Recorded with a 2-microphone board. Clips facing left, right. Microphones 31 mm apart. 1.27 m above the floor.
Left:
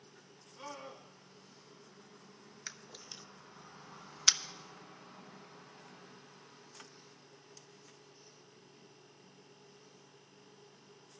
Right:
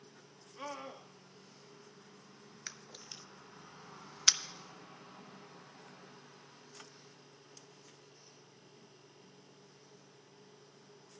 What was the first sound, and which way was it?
A scream, 40° right (ahead or behind).